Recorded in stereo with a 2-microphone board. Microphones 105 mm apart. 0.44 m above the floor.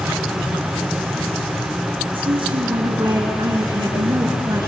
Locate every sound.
2.1 s a woman speaking: 55° right (ahead or behind), 5 m; by 4.7 s 40° right (ahead or behind), 6 m